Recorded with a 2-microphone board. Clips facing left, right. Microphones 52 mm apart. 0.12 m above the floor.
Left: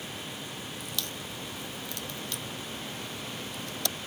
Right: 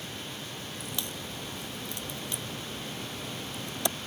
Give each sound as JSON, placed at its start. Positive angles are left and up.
{"t": 0.8, "sound": "a crack", "side_deg": -20}